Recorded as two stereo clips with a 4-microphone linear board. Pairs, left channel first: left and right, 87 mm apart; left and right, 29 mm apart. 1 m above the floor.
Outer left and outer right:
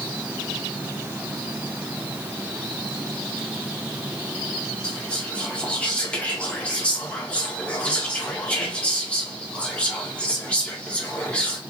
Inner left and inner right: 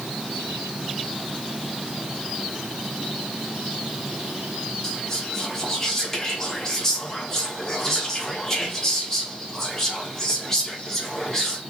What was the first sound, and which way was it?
Whispering, 15° left (ahead or behind).